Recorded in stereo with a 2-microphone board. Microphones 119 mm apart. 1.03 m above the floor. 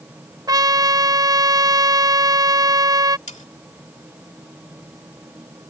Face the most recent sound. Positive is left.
turn(degrees=70)  # may be behind; listen again after turning